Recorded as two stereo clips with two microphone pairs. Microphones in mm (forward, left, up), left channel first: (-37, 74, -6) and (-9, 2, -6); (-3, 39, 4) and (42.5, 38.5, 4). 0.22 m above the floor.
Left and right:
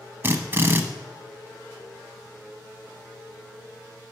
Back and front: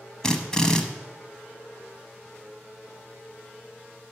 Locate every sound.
0.2 s a drill: 115° right, 0.8 m